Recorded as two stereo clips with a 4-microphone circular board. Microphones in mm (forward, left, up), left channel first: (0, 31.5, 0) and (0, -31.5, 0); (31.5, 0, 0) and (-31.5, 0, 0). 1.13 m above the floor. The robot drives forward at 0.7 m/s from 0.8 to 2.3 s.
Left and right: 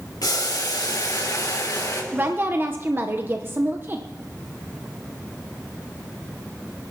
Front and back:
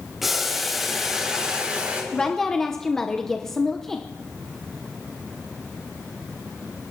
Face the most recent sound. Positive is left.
turn(degrees=-80)